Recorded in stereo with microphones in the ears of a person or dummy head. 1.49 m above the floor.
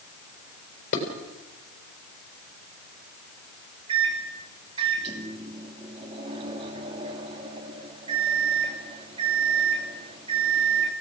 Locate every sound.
0.9 s dishes clattering: 50° left (ahead or behind), 4.5 m
3.9 s a microwave: 30° right (ahead or behind), 2.5 m